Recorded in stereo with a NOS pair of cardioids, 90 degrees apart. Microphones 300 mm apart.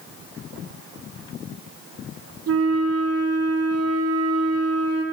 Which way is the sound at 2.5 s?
55° right.